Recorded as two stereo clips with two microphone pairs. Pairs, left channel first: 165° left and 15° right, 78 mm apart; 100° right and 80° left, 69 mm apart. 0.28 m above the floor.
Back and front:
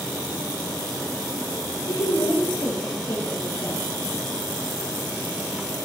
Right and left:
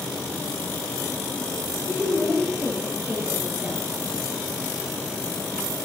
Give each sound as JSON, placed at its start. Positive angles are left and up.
{"t": 1.9, "sound": "a woman speaking", "azimuth_deg": 135, "distance_m": 4.5}